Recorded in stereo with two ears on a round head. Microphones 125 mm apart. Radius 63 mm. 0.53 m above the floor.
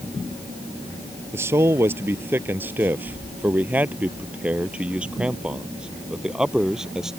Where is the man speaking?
15° right (ahead or behind); by 7.1 s 5° right (ahead or behind).